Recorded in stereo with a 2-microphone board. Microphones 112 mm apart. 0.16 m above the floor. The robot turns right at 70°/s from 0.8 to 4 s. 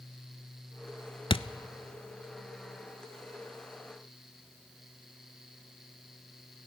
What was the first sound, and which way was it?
A thud, 50° left (ahead or behind).